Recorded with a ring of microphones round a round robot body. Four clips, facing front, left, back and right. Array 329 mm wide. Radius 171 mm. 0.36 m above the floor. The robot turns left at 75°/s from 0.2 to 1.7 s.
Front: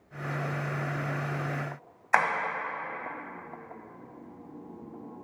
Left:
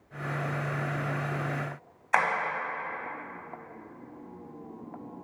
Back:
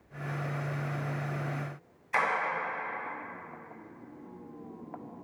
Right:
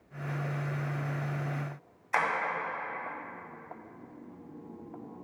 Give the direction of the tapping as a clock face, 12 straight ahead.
11 o'clock.